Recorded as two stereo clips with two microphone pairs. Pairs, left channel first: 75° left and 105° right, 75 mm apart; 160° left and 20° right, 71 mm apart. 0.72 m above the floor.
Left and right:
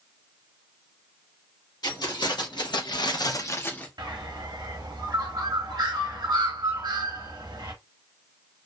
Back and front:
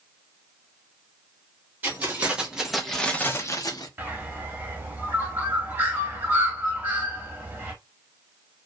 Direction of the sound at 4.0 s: 80° right.